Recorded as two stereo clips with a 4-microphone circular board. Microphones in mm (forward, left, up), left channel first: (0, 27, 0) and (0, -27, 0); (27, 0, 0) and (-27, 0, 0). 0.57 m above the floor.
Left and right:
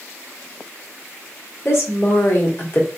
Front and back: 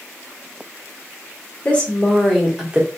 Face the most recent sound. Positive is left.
turn(degrees=120)